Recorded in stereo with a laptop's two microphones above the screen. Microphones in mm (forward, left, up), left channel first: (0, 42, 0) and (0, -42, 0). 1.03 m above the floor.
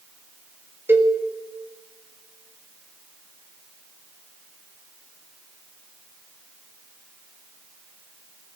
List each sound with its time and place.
0.9 s a cowbell: 25° right (ahead or behind), 1.6 m